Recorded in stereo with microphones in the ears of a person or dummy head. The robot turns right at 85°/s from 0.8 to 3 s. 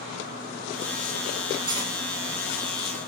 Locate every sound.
1.7 s cutlery clinking: 20° right (ahead or behind), 1.4 m; by 1.9 s 40° right (ahead or behind), 1.4 m